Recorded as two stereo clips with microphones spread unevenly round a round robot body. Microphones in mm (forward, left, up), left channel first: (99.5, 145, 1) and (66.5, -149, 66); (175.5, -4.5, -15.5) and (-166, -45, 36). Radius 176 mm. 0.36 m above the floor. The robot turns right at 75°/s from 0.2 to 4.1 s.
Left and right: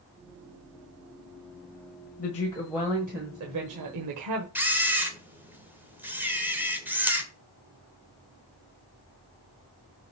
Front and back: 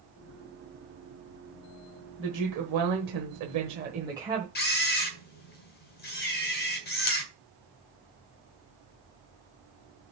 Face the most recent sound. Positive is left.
turn(degrees=0)